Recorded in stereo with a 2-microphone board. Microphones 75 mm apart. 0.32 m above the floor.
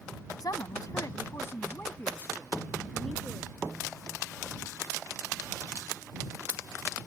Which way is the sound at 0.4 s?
65° left (ahead or behind).